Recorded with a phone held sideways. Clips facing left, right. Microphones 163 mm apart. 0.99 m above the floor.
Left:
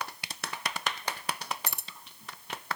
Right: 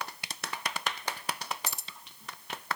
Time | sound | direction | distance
1.7 | keys jangling | 55° left (ahead or behind) | 0.6 m